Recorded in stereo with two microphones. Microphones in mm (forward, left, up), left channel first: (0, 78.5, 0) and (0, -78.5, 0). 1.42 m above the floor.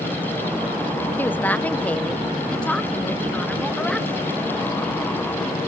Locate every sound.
1.2 s a woman speaking: 10° left (ahead or behind), 0.8 m; by 4.3 s 5° left (ahead or behind), 2.5 m